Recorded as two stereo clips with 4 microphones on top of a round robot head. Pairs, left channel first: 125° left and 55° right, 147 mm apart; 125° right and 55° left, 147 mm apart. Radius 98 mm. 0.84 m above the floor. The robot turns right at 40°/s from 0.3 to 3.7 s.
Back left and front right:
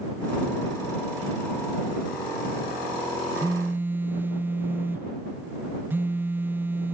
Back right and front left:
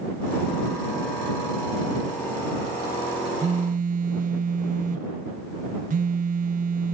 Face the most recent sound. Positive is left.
turn(degrees=25)